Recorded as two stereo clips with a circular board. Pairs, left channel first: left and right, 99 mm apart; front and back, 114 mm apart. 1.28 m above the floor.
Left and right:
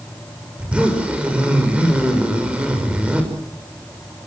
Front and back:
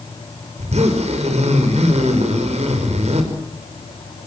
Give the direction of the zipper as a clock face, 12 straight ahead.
6 o'clock.